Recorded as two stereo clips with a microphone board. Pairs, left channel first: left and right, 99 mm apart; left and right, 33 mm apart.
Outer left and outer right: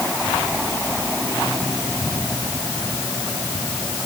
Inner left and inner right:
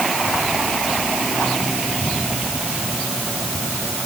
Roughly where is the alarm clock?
I don't hear an alarm clock.